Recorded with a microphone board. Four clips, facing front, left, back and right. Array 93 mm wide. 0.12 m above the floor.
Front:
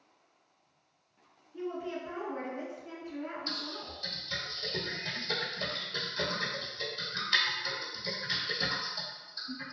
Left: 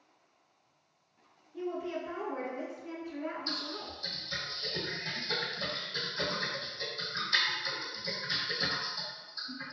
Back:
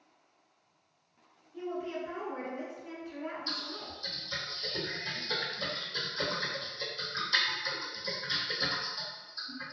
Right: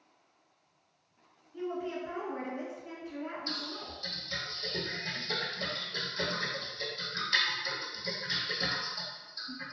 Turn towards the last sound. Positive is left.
turn(degrees=-20)